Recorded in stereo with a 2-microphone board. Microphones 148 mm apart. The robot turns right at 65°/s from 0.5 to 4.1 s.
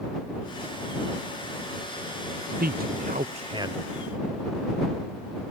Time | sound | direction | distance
2.6 | a man speaking | 85° right | ?